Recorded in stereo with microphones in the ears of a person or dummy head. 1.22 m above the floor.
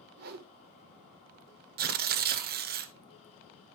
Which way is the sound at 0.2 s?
45° right (ahead or behind).